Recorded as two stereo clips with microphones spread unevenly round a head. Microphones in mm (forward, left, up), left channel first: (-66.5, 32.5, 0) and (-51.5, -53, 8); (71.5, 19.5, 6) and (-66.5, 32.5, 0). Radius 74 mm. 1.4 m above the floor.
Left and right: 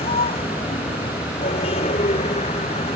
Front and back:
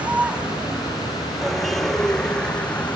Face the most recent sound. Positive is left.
turn(degrees=75)